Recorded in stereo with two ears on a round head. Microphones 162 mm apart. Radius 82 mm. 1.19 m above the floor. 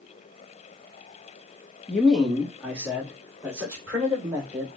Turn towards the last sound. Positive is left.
turn(degrees=-15)  # may be behind; listen again after turning